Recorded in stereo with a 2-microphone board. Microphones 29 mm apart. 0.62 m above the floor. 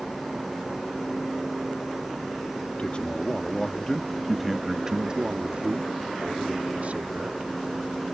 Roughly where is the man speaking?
Left.